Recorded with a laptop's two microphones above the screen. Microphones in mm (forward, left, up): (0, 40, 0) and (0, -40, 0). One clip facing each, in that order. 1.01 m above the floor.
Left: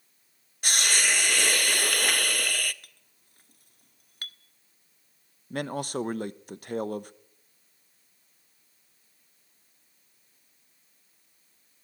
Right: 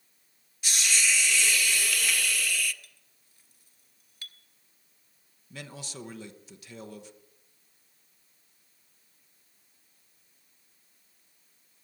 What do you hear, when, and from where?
0.6 s a hiss: 55° left (ahead or behind), 0.6 m
2.8 s a clink: 55° left (ahead or behind), 1.2 m
5.5 s a man speaking: 50° left (ahead or behind), 0.8 m